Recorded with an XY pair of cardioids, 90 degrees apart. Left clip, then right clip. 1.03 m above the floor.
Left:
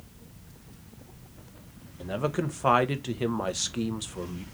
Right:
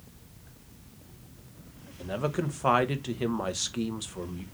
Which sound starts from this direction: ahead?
A man speaking, at 2.0 s.